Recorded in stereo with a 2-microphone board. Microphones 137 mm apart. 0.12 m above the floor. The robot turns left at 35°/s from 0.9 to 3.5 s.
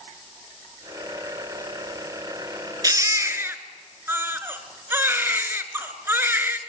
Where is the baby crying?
30° right (ahead or behind), 1.3 m; by 6.6 s 15° right (ahead or behind), 1.3 m.